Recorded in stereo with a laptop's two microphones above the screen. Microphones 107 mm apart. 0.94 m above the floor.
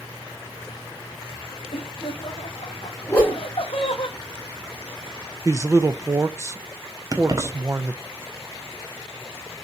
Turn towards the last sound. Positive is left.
turn(degrees=-35)  # may be behind; listen again after turning